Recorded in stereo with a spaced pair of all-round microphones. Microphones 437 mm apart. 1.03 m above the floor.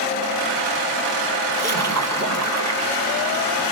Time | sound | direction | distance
1.5 | a splash | 35° right (ahead or behind) | 0.8 m